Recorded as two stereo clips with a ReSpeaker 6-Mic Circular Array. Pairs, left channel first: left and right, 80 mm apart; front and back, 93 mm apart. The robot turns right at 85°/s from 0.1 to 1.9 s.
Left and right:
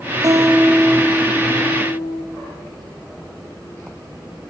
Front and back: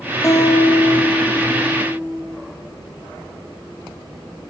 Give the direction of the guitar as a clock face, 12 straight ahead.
2 o'clock.